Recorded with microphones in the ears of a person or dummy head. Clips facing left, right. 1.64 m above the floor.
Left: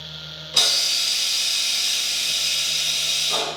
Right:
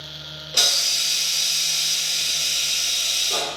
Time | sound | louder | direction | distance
0.5 | a hiss | even | 60° left (ahead or behind) | 1.6 m